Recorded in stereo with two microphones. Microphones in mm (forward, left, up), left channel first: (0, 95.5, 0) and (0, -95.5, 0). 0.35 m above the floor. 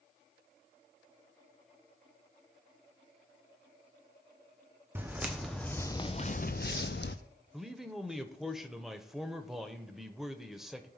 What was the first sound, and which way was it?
Footsteps, 10° right (ahead or behind).